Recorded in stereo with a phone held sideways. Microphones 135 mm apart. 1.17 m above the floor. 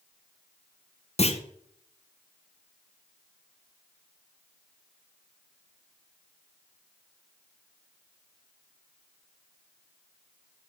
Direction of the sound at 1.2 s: 50° left (ahead or behind).